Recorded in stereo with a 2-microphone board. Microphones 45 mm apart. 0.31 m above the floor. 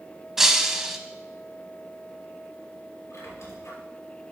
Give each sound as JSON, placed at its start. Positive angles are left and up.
{"t": 0.4, "sound": "breaking glass", "side_deg": -5, "distance_m": 0.8}
{"t": 3.1, "sound": "a squeak", "side_deg": 70, "distance_m": 3.5}